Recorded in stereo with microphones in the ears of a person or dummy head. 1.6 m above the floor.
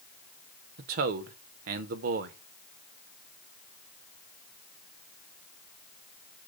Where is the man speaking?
50° right (ahead or behind), 0.7 m.